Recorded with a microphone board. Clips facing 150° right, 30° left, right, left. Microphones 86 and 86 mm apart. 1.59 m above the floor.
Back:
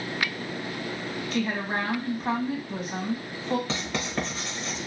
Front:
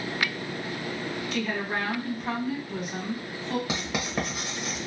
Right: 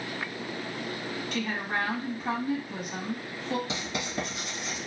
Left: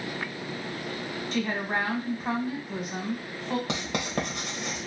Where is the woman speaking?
155° left, 1.6 m.